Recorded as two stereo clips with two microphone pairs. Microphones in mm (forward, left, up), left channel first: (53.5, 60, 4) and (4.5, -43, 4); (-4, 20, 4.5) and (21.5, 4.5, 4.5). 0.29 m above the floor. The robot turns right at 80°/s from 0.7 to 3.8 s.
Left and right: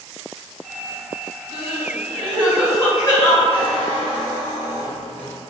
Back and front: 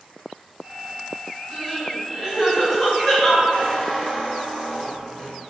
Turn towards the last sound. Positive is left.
turn(degrees=-135)